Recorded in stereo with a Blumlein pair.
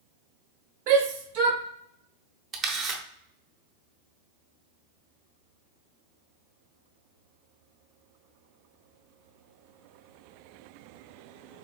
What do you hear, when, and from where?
0.9 s a shout: 30° right, 0.7 m
2.5 s a camera shutter: 15° right, 0.9 m